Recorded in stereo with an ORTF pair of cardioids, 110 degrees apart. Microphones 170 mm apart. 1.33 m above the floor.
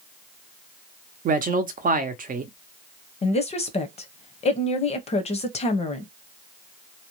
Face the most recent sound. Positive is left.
turn(degrees=35)